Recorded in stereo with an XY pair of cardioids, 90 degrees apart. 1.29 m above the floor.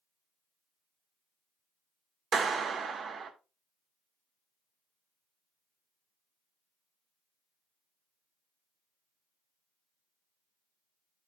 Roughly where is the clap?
Ahead right.